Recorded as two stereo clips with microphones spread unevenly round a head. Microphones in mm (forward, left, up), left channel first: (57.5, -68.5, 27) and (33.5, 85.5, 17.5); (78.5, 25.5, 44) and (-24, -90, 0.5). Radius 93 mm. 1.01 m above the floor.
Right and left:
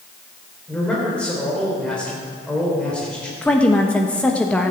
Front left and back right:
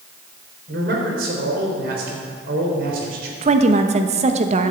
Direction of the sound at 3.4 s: 165° right.